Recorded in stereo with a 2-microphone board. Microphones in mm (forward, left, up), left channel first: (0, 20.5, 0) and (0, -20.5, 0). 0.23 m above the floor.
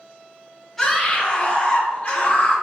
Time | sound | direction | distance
0.8 | a scream | 10° left (ahead or behind) | 1.3 m